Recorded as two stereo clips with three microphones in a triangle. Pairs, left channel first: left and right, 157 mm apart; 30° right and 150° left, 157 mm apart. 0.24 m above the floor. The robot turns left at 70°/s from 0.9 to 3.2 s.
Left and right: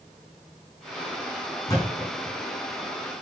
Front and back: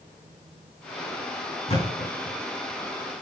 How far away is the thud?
About 4.5 m.